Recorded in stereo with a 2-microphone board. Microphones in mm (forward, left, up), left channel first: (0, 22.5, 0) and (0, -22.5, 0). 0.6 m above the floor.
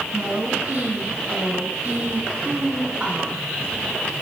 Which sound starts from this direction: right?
A woman speaking, at 0.1 s.